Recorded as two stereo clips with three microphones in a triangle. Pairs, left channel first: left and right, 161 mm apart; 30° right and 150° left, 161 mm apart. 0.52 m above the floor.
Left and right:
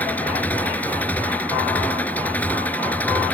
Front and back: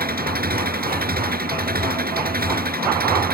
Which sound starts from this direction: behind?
An engine running, at 0.0 s.